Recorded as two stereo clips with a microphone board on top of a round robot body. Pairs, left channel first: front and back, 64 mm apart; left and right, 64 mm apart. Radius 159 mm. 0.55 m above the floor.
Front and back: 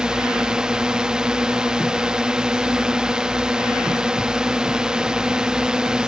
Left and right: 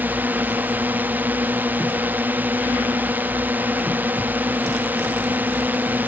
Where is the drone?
115° right.